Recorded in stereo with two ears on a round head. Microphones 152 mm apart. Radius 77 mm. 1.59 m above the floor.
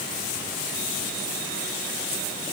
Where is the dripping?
No dripping in this recording.